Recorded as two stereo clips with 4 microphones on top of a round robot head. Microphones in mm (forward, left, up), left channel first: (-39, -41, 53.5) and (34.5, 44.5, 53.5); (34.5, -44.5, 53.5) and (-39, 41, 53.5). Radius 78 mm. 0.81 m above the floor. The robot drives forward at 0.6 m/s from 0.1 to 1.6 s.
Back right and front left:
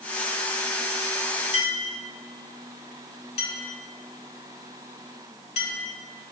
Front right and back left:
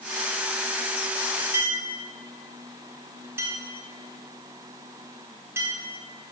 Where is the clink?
160° right, 1.6 m.